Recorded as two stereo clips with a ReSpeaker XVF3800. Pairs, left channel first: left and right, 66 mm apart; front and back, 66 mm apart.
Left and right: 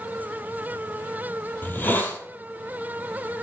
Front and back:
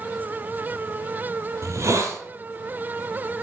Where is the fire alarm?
I don't hear a fire alarm.